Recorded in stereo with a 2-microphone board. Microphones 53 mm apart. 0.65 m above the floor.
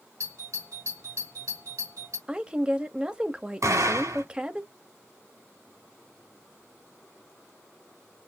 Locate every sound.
0.2 s a doorbell: 70° right (ahead or behind), 4.5 m
2.3 s a woman speaking: 20° right (ahead or behind), 0.8 m
3.6 s an explosion: 65° right (ahead or behind), 5.5 m